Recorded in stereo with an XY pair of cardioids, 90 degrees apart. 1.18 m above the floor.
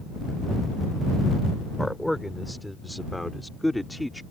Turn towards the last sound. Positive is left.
turn(degrees=5)